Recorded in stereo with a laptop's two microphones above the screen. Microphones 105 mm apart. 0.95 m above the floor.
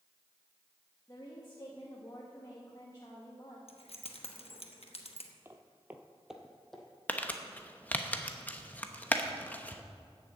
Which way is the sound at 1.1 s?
35° left (ahead or behind).